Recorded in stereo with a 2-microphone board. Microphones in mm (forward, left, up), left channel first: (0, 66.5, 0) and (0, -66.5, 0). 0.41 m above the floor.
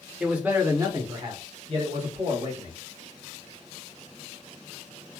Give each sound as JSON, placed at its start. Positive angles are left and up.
{"t": 0.2, "sound": "a man speaking", "side_deg": -5, "distance_m": 0.9}